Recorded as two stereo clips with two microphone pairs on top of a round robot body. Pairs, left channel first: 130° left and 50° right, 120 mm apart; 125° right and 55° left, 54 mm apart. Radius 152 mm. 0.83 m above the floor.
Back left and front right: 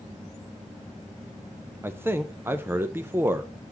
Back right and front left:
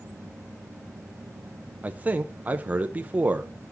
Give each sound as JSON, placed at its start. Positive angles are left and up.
{"t": 1.8, "sound": "a man speaking", "azimuth_deg": 5, "distance_m": 0.7}